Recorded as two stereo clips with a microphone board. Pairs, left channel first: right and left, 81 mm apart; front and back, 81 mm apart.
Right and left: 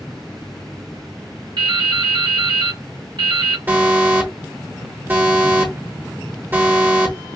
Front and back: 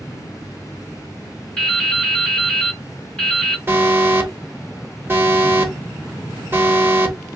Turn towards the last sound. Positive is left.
turn(degrees=140)